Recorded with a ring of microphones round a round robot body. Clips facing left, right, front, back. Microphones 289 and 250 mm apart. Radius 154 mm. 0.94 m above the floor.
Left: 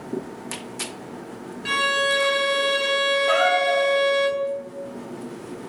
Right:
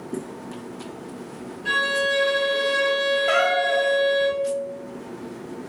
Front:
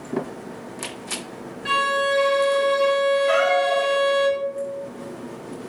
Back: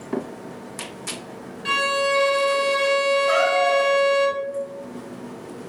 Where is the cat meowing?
55° right, 0.6 m.